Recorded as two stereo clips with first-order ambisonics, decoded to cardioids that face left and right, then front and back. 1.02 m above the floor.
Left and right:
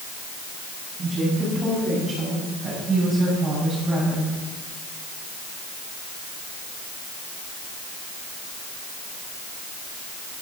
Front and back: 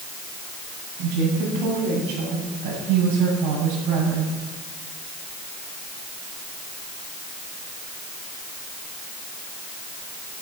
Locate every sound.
1.0 s a woman speaking: 155° right, 8 m; by 4.3 s 175° right, 7 m